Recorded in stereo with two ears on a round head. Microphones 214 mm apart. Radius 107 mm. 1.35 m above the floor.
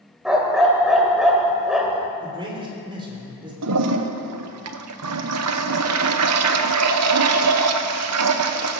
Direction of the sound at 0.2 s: Centre (ahead or behind).